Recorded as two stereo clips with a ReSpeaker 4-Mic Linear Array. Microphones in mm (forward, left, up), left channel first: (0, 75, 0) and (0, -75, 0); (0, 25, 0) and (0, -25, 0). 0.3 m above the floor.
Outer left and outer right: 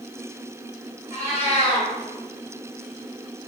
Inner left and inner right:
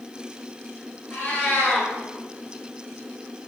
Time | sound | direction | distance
1.1 | a cat meowing | 45° left (ahead or behind) | 1.6 m